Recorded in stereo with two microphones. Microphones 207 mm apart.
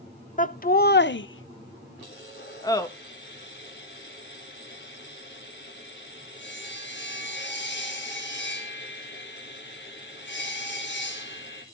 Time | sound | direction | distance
0.4 | laughter | 40° left (ahead or behind) | 1.3 m
2.0 | sawing | 60° left (ahead or behind) | 3.5 m